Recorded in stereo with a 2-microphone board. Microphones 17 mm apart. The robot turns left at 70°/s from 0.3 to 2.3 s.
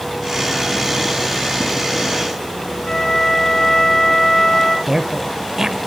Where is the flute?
35° left (ahead or behind), 4 m.